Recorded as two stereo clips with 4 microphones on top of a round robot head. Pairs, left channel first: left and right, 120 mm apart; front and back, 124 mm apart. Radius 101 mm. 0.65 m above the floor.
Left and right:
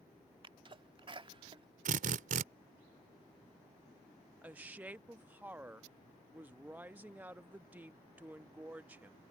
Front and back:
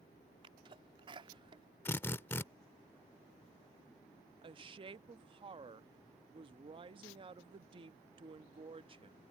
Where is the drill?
75° right.